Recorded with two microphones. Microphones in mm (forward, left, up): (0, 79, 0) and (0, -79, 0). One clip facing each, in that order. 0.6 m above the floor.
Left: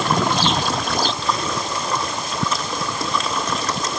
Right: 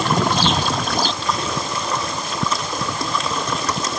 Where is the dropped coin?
I don't hear a dropped coin.